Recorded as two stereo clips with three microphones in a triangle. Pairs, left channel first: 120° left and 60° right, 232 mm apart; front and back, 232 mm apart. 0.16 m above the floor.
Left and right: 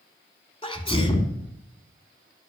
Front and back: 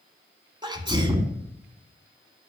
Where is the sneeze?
145° left, 1.1 m.